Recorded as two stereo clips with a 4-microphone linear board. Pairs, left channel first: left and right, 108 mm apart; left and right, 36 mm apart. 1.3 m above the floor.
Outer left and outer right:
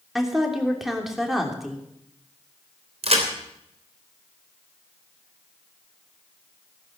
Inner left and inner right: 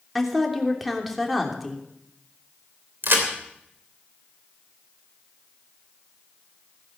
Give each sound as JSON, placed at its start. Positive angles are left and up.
{"t": 0.1, "sound": "a woman speaking", "side_deg": 0, "distance_m": 3.0}
{"t": 3.0, "sound": "a crack", "side_deg": -65, "distance_m": 3.0}